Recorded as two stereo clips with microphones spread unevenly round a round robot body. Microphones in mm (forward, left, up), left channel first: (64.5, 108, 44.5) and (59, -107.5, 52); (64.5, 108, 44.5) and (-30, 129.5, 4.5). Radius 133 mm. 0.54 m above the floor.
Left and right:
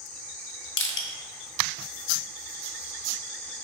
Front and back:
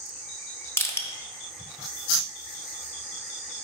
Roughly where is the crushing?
Ahead left.